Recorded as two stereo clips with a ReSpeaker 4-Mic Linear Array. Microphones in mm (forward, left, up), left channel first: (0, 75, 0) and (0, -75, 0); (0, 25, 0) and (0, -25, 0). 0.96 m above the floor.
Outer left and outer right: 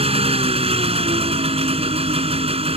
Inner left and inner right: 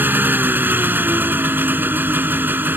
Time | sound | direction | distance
0.0 | an engine running | 40° right (ahead or behind) | ?